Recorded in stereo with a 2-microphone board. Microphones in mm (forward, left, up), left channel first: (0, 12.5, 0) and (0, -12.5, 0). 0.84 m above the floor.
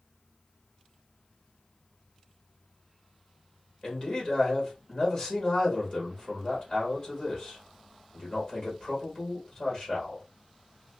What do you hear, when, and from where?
3.8 s a man speaking: 40° left (ahead or behind), 1.4 m